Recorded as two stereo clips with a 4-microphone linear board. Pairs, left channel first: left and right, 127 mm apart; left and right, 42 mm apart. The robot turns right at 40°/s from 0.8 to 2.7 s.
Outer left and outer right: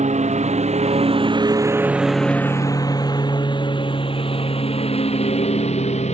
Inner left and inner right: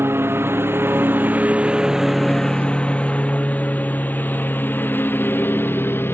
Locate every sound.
0.0 s a lawn mower: 80° right; by 6.1 s 70° left (ahead or behind)